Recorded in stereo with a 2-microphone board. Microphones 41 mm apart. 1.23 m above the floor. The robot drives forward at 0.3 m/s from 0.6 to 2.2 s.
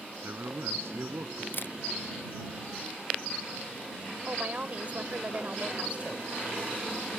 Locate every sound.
0.2 s a man speaking: 75° right (ahead or behind)
1.5 s a camera shutter: 60° left (ahead or behind); by 1.7 s 55° left (ahead or behind)
4.3 s a woman speaking: 35° right (ahead or behind)